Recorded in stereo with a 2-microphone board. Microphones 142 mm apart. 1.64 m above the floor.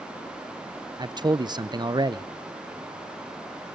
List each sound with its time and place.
1.0 s a man speaking: 30° right (ahead or behind), 0.7 m